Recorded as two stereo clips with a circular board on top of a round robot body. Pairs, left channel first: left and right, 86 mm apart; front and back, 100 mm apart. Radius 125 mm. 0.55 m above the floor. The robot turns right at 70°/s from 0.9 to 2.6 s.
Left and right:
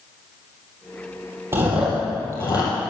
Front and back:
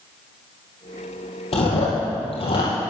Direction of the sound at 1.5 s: 30° right.